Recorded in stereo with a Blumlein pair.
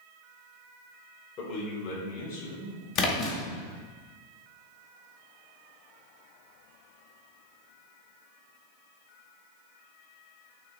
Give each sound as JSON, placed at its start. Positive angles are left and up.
{"t": 1.4, "sound": "a man speaking", "azimuth_deg": 35, "distance_m": 1.9}
{"t": 3.0, "sound": "a splash", "azimuth_deg": 35, "distance_m": 1.4}